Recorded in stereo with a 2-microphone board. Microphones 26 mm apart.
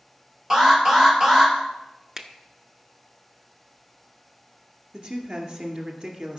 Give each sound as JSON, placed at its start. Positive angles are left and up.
{"t": 0.5, "sound": "an alarm", "side_deg": -20, "distance_m": 2.0}
{"t": 2.2, "sound": "a finger snap", "side_deg": -20, "distance_m": 0.9}
{"t": 4.9, "sound": "a woman speaking", "side_deg": -45, "distance_m": 2.0}